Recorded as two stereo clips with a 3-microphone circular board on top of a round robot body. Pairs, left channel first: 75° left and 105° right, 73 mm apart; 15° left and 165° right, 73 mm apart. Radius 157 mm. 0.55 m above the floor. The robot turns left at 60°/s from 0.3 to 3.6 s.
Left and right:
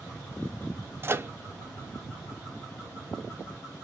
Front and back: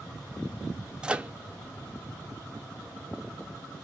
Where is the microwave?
95° right, 0.6 m; by 1.3 s 115° right, 0.6 m.